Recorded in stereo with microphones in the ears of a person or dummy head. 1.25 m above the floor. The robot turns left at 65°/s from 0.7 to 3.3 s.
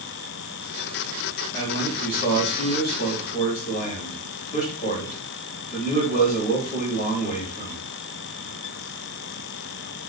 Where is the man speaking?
165° left, 2.5 m; by 7.8 s 50° left, 2.5 m.